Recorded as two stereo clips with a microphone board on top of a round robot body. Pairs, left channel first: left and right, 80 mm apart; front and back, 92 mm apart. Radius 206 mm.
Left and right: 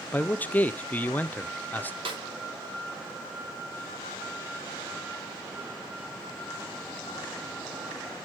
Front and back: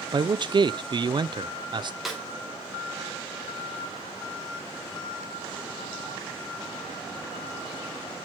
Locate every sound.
0.1 s a man speaking: 155° left, 0.6 m
2.0 s a snare drum: 95° right, 3.5 m